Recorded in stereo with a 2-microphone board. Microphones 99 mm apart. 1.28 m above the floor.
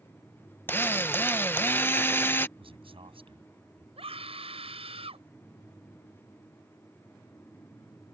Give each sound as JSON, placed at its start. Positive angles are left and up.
{"t": 0.7, "sound": "a drill", "side_deg": 20}
{"t": 2.6, "sound": "a man speaking", "side_deg": -65}
{"t": 4.0, "sound": "a scream", "side_deg": -80}